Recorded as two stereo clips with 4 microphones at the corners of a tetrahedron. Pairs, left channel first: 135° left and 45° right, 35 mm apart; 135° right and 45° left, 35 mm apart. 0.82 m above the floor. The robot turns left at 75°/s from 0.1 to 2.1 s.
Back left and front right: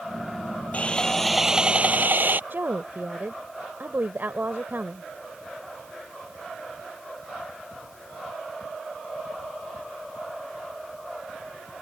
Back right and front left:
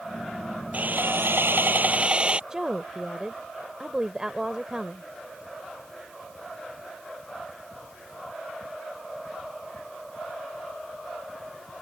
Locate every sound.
0.7 s sawing: 85° left; by 2.4 s 15° right
2.5 s a woman speaking: 30° right